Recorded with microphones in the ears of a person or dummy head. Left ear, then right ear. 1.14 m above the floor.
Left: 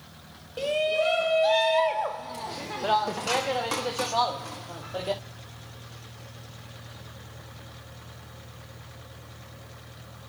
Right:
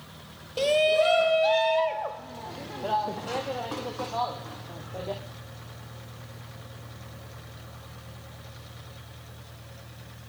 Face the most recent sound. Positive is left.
turn(degrees=75)  # may be behind; listen again after turning